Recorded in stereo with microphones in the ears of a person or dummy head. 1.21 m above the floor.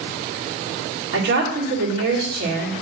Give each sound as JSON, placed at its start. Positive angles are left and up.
{"t": 1.1, "sound": "a woman speaking", "side_deg": -60, "distance_m": 2.0}